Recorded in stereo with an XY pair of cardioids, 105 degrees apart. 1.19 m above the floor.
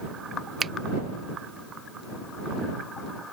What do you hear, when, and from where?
0.6 s a finger snap: 40° right